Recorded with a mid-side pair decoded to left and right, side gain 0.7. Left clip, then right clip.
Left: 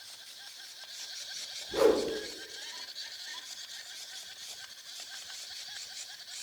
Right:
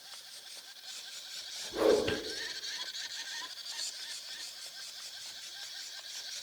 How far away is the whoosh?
About 3 m.